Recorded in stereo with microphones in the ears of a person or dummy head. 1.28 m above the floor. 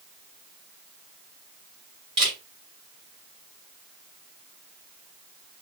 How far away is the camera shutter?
About 1.7 m.